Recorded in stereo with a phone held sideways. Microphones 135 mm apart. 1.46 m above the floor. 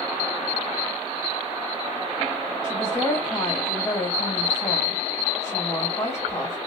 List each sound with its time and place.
2.6 s a woman speaking: 20° left (ahead or behind), 2 m